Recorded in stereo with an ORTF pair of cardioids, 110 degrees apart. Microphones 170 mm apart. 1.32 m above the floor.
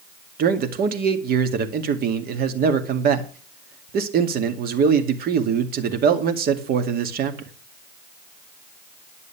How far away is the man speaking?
About 2 m.